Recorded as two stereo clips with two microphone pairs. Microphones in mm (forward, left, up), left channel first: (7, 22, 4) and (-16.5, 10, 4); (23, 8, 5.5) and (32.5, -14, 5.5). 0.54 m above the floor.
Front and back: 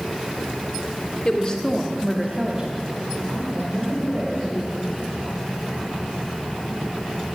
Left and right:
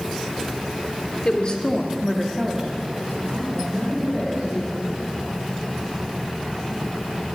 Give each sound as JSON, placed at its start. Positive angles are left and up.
{"t": 1.2, "sound": "a woman speaking", "azimuth_deg": 70, "distance_m": 1.3}